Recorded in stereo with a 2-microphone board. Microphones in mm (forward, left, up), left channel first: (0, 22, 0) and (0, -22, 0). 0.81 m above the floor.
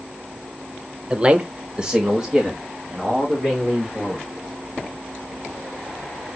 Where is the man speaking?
20° right (ahead or behind), 0.9 m; by 4.3 s 5° right (ahead or behind), 4.5 m.